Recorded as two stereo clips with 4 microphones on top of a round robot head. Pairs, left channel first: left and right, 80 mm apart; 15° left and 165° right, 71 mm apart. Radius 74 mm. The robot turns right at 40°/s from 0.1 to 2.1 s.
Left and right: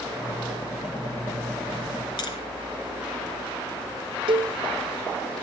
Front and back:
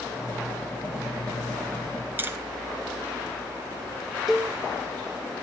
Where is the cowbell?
80° right, 1.0 m.